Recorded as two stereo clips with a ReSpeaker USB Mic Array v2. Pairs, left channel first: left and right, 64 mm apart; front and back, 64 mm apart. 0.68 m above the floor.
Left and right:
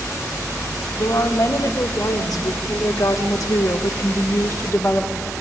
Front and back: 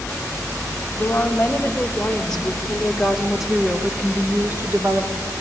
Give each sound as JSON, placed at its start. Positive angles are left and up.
{"t": 1.0, "sound": "a woman speaking", "azimuth_deg": 65, "distance_m": 2.5}